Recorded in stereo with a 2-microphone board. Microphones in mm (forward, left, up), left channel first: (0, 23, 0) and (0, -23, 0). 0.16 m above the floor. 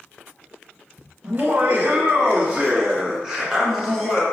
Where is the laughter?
35° right (ahead or behind), 1.6 m; by 4.2 s centre (ahead or behind), 2 m.